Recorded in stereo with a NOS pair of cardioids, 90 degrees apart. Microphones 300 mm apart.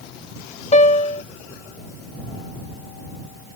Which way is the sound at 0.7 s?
25° left.